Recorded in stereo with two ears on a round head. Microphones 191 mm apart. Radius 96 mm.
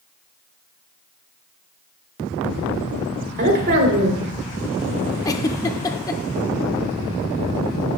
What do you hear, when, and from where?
3.4 s a woman speaking: 50° right (ahead or behind), 2 m
5.2 s a giggle: 15° left (ahead or behind), 0.6 m